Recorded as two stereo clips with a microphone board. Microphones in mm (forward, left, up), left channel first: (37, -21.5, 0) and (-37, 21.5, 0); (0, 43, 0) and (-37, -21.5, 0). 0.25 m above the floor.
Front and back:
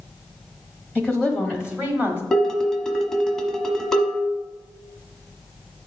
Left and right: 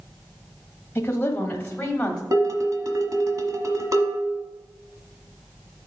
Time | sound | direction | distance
0.9 | a woman speaking | 45° left | 1.2 m
2.3 | dishes clattering | 115° right | 1.2 m